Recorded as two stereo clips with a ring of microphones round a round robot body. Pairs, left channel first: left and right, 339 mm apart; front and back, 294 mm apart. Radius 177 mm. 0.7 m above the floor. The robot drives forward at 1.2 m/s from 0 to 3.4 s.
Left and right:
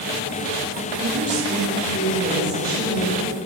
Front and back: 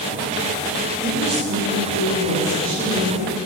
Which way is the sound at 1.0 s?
115° right.